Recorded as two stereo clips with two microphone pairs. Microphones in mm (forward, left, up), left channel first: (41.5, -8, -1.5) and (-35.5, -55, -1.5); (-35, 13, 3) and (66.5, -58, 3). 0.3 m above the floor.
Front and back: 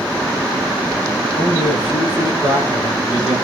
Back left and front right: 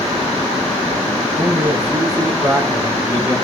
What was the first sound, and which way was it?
A man speaking, 30° left.